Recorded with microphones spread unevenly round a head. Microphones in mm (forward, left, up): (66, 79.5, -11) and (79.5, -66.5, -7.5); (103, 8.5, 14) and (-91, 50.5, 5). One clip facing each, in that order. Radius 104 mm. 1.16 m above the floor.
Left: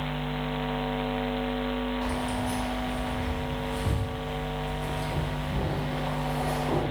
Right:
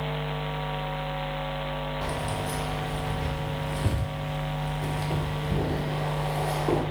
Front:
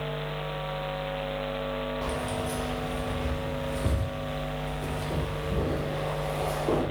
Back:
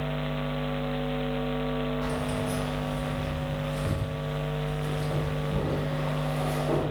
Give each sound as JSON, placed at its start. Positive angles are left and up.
{"t": 2.0, "sound": "keys jangling", "azimuth_deg": -65, "distance_m": 1.6}